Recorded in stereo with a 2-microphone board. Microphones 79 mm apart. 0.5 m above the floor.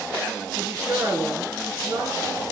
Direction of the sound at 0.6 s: 35° right (ahead or behind).